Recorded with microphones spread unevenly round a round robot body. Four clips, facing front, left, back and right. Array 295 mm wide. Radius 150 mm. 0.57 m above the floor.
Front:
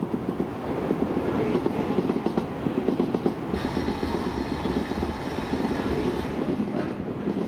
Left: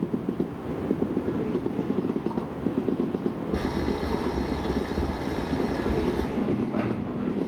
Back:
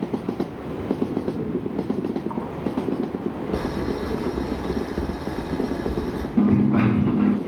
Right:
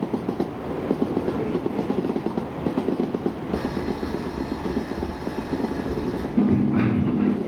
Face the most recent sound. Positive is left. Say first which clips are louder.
# right 6 dB, back 8 dB
turn(degrees=-135)